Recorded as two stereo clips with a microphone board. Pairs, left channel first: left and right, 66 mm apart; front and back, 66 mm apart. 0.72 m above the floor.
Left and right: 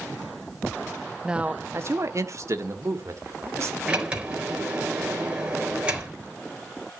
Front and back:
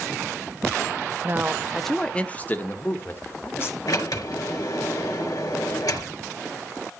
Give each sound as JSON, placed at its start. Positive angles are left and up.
{"t": 1.2, "sound": "a man speaking", "azimuth_deg": -165, "distance_m": 1.0}
{"t": 3.9, "sound": "a sliding door", "azimuth_deg": -20, "distance_m": 3.5}